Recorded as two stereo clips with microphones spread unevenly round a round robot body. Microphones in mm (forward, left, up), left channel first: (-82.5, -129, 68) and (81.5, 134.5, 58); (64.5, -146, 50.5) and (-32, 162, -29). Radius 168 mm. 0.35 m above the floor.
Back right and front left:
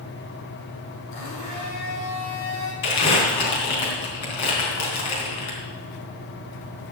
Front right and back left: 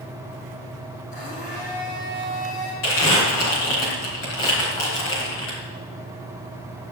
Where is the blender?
140° right, 5.5 m.